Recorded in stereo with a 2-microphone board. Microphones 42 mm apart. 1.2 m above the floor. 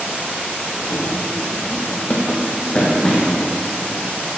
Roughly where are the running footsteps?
Left.